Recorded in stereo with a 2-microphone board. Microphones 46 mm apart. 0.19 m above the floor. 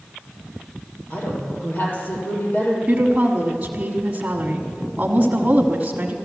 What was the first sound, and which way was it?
A woman speaking, 45° left (ahead or behind).